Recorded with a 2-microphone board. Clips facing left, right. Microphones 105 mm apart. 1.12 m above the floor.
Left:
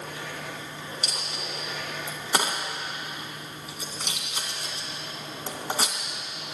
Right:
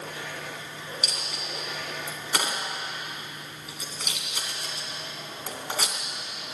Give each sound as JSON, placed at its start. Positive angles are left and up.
{"t": 1.0, "sound": "a dropped coin", "side_deg": 30, "distance_m": 2.0}